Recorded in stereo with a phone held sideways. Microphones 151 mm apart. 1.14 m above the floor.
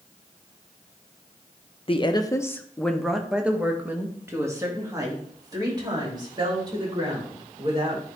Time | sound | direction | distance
1.9 | a woman speaking | 35° left (ahead or behind) | 0.7 m